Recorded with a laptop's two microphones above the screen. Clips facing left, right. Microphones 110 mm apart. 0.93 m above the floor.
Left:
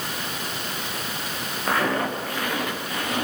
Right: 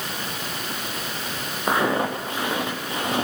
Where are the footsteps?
20° right (ahead or behind), 3.5 m; by 3.2 s 30° right (ahead or behind), 4.5 m.